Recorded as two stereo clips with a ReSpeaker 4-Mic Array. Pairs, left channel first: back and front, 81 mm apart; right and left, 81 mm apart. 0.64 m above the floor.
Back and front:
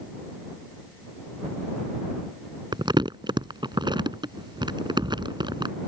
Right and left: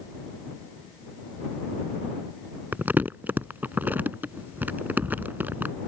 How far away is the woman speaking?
No woman speaking in this recording.